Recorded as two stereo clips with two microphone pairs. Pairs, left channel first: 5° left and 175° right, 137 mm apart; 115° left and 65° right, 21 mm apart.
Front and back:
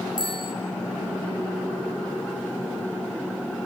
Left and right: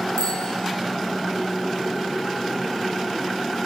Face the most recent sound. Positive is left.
turn(degrees=130)